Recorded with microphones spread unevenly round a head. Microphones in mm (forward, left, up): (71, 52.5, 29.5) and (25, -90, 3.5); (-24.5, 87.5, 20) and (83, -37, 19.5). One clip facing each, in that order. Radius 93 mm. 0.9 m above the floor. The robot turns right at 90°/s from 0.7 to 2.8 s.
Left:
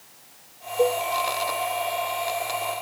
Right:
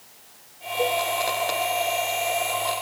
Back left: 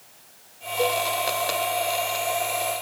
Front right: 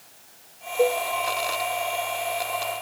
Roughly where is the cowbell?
Ahead.